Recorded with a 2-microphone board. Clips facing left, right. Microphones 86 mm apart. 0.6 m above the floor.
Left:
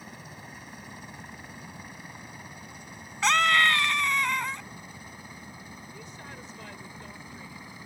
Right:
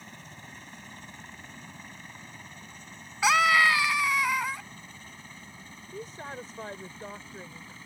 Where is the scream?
5° right (ahead or behind).